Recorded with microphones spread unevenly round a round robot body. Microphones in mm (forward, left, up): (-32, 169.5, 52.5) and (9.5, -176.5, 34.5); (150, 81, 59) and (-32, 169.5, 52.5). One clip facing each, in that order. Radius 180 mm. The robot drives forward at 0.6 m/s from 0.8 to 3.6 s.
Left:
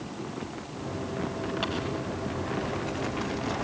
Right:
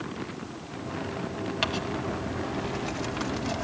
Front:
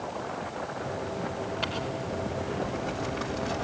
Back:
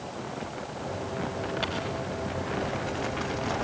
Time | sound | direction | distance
1.6 | crumpling | 120° right | 3 m